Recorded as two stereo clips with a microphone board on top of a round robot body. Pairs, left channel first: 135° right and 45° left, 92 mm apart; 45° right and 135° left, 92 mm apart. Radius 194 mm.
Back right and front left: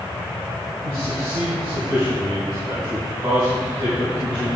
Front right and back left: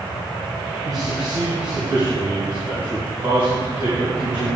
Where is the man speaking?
90° left, 2.5 m; by 4.5 s 110° left, 5.5 m.